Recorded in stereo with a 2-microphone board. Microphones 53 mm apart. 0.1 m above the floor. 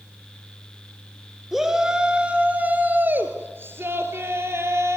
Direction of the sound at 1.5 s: 5° right (ahead or behind).